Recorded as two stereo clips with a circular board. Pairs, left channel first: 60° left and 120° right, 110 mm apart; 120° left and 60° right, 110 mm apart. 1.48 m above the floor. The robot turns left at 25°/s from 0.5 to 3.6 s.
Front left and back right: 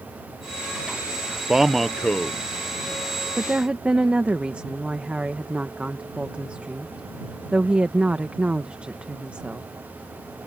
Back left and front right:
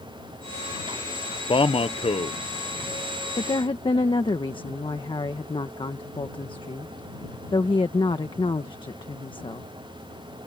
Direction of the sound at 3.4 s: 165° left.